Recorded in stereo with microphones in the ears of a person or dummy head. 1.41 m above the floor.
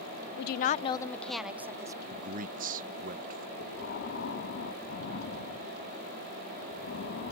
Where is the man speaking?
50° right (ahead or behind).